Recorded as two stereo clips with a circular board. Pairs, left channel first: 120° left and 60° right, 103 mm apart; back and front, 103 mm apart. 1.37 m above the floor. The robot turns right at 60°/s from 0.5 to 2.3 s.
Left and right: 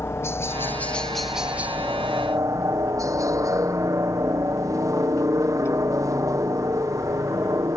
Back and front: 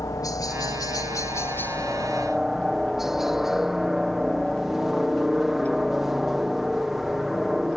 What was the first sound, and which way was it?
A helicopter, 170° left.